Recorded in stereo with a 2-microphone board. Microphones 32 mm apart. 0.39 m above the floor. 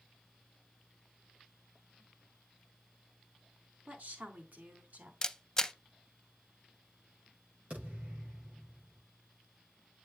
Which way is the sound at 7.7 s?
50° right (ahead or behind).